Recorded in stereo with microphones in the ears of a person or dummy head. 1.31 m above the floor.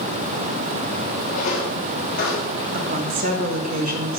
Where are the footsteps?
35° left (ahead or behind), 2.5 m; by 2.6 s 45° left (ahead or behind), 2.5 m.